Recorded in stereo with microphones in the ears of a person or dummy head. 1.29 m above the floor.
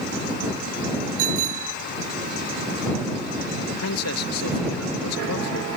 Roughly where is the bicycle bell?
Right.